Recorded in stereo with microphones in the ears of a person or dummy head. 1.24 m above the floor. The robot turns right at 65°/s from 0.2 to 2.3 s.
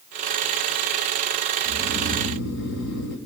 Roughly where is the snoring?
Ahead left.